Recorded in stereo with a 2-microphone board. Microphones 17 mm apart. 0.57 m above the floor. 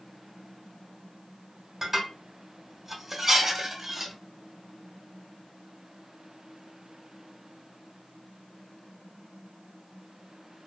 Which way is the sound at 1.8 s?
20° right (ahead or behind).